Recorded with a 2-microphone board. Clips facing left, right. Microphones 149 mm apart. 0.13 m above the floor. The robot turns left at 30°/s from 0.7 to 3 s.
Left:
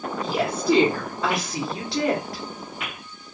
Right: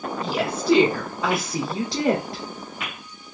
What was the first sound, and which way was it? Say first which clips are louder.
A woman speaking: even; 10° left.